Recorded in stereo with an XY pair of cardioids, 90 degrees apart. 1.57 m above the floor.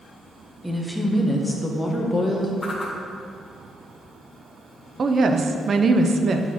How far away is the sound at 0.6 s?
About 1.1 m.